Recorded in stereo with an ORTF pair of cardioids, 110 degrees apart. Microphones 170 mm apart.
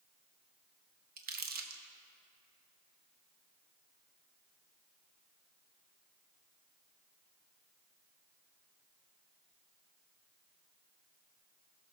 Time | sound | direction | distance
1.2 | crumpling | 55° right | 1.1 m